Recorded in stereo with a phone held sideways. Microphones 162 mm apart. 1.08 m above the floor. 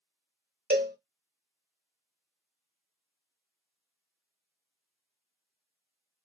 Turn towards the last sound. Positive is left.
turn(degrees=-70)  # may be behind; listen again after turning